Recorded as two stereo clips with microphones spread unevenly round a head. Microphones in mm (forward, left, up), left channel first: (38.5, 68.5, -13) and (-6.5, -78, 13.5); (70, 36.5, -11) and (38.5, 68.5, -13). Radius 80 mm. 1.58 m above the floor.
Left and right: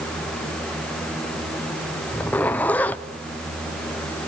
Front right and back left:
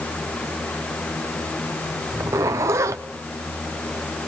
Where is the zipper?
155° left, 0.6 m.